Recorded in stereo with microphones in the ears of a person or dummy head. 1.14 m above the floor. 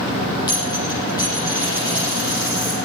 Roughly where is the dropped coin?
Left.